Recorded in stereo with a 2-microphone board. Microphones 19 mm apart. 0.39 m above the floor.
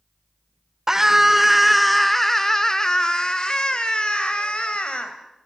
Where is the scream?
25° right (ahead or behind), 1.5 m; by 5.2 s 55° left (ahead or behind), 2.5 m.